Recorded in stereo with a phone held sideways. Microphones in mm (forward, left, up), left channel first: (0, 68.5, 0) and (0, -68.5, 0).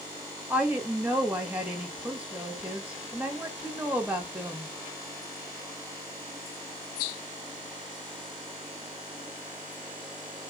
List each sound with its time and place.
0.5 s a woman speaking: 10° right (ahead or behind), 1.4 m